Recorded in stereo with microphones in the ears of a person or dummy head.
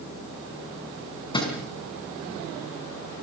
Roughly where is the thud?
Left.